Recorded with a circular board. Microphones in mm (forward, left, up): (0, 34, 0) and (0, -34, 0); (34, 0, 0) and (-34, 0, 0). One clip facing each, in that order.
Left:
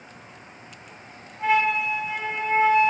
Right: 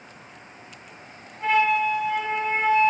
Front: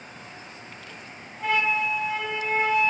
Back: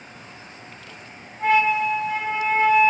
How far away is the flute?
About 0.8 m.